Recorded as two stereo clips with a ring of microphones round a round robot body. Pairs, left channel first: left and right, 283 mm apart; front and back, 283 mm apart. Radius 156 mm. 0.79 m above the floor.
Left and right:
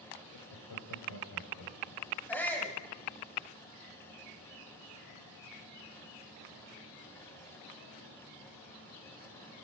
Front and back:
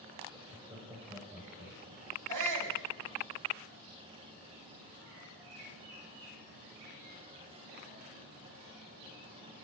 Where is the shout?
175° left, 4.5 m.